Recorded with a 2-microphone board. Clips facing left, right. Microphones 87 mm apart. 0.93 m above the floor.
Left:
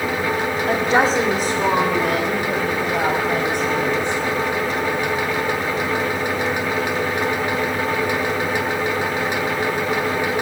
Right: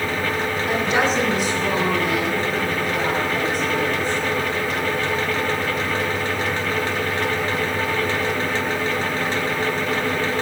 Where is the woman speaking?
50° left (ahead or behind), 2.0 m; by 4.2 s 75° left (ahead or behind), 6 m.